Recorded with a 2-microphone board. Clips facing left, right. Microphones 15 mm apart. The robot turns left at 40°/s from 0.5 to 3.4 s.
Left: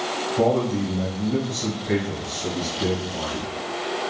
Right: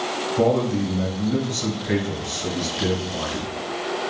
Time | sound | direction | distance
0.4 | a man speaking | 20° right | 1.4 m